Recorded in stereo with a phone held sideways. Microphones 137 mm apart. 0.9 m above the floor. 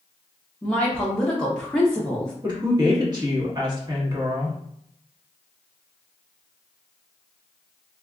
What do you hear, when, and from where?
0.6 s a woman speaking: 5° left (ahead or behind), 0.7 m
2.4 s a woman speaking: 35° right (ahead or behind), 1.2 m